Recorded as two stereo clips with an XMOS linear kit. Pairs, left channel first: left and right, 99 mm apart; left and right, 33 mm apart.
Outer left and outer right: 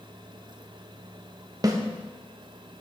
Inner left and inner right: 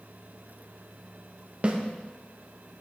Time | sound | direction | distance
1.6 | a snare drum | 40° right (ahead or behind) | 0.9 m